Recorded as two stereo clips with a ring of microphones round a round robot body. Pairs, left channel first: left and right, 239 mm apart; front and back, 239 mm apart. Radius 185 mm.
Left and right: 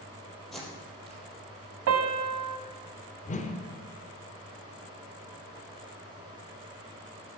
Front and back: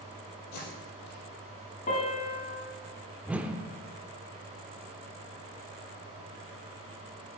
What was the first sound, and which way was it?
Tape being pulled, straight ahead.